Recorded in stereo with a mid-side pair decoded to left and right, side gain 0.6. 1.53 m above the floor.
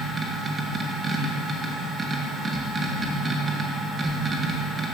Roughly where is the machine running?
Ahead right.